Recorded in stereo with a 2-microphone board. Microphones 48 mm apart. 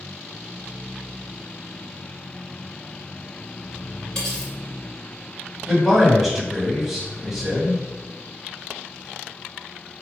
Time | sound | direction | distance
4.2 | cutlery clinking | 20° left (ahead or behind) | 2.0 m
5.7 | a man speaking | centre (ahead or behind) | 1.3 m